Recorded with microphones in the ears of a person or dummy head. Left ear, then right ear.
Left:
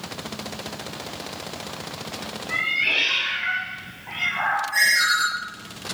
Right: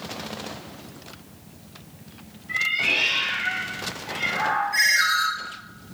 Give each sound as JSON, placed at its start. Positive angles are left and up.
{"t": 2.5, "sound": "a cat meowing", "side_deg": 15, "distance_m": 1.4}
{"t": 4.7, "sound": "a ringtone", "side_deg": 30, "distance_m": 1.1}